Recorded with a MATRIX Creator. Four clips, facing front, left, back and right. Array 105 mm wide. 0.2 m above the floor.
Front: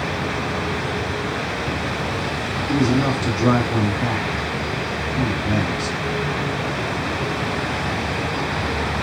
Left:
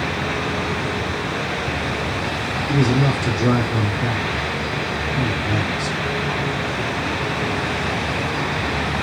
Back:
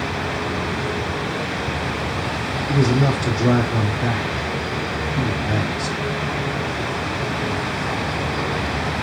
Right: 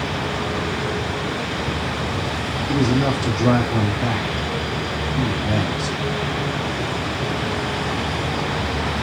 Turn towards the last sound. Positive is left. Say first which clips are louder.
# even, even
turn(degrees=-20)